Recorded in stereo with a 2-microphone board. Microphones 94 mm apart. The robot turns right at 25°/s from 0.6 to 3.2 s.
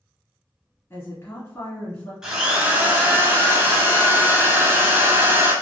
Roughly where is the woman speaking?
Left.